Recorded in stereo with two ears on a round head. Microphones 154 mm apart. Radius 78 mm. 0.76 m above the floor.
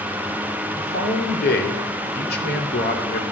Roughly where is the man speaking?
Left.